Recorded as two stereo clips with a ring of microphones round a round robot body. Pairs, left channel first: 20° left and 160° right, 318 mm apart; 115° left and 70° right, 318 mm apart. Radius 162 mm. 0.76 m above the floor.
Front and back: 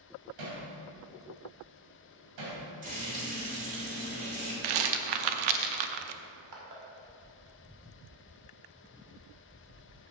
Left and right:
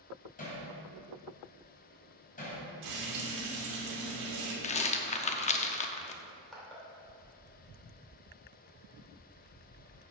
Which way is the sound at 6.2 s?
160° right.